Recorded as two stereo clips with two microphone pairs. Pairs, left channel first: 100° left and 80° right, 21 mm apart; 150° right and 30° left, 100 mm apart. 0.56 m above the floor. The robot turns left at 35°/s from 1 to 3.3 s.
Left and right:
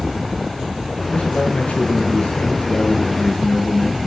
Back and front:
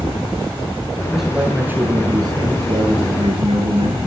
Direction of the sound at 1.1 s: 115° left.